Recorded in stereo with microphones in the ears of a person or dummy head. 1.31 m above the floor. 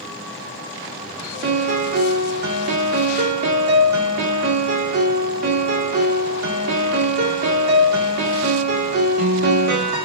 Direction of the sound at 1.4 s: 55° right (ahead or behind).